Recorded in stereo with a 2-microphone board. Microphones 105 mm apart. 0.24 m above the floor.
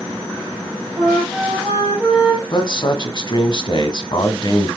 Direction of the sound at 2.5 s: 45° left (ahead or behind).